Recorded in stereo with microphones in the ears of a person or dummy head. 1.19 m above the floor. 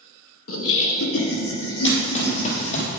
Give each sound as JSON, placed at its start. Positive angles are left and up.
{"t": 0.5, "sound": "laughter", "side_deg": 80, "distance_m": 1.3}
{"t": 1.8, "sound": "running footsteps", "side_deg": 20, "distance_m": 1.7}